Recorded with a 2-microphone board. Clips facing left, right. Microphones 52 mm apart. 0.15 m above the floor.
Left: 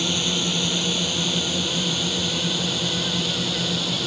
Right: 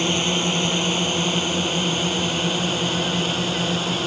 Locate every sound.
0.0 s a drone: 40° right (ahead or behind)